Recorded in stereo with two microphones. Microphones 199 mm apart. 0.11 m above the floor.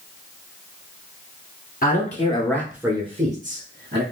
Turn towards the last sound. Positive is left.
turn(degrees=-60)  # may be behind; listen again after turning